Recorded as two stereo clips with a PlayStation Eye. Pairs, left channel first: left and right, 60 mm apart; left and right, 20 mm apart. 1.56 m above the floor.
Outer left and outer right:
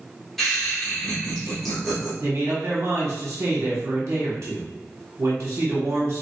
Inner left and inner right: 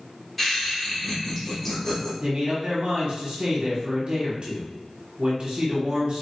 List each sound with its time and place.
0.4 s laughter: 5° left (ahead or behind), 1.5 m
2.2 s a man speaking: 50° right (ahead or behind), 1.3 m